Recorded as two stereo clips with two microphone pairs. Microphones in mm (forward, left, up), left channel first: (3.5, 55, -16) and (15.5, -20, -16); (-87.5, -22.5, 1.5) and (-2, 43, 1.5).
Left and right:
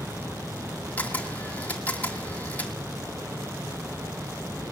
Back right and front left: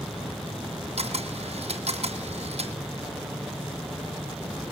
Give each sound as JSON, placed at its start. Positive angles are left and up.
{"t": 1.0, "sound": "a camera shutter", "azimuth_deg": 30, "distance_m": 2.5}